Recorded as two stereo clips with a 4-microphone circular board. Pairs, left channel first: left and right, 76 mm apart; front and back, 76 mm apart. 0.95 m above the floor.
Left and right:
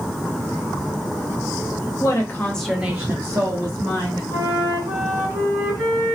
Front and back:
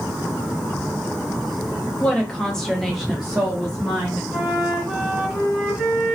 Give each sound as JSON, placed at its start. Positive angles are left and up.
{"t": 2.0, "sound": "a woman speaking", "azimuth_deg": 70, "distance_m": 0.9}
{"t": 4.3, "sound": "a flute", "azimuth_deg": -100, "distance_m": 1.8}